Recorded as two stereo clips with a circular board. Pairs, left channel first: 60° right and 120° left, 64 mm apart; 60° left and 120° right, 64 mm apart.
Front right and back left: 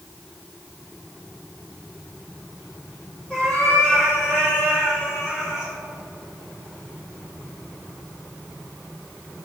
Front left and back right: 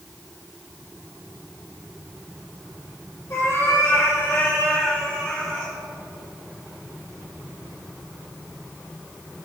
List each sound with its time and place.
3.3 s a cat meowing: 15° left, 3.5 m; by 5.7 s 20° right, 4 m